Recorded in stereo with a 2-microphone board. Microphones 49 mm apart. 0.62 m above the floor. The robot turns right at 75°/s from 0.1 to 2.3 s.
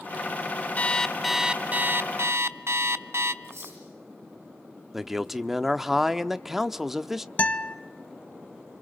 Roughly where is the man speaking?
Centre.